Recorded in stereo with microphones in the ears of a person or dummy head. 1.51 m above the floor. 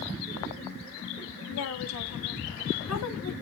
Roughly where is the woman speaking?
Left.